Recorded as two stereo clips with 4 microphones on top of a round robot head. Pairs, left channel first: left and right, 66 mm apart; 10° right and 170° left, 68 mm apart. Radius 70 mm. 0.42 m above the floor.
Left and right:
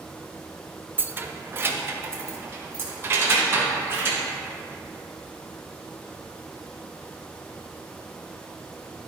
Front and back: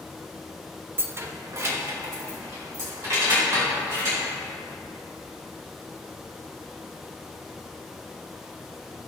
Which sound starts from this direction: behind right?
Keys jangling, at 1.0 s.